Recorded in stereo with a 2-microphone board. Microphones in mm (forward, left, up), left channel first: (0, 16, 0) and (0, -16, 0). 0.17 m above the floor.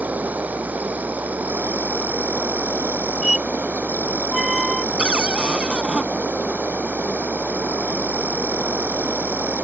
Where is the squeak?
10° right (ahead or behind).